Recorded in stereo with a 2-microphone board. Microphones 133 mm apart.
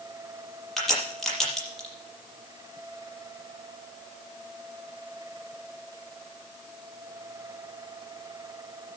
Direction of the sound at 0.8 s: 5° left (ahead or behind).